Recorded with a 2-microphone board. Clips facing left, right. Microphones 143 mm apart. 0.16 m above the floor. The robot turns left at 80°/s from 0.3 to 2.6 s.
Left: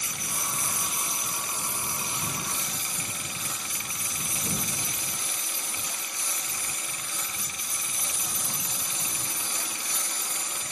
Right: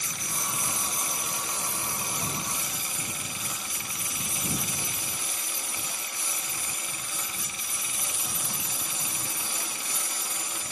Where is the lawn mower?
10° left; by 10.7 s 170° right.